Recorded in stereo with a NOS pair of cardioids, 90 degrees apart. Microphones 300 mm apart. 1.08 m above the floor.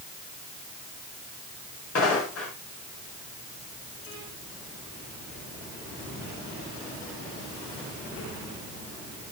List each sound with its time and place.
1.9 s footsteps: 50° left, 8.5 m